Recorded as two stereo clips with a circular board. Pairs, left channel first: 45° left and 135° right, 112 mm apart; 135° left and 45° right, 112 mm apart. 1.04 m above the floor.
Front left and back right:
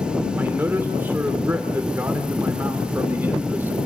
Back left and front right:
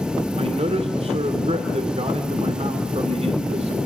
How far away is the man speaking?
About 2.5 m.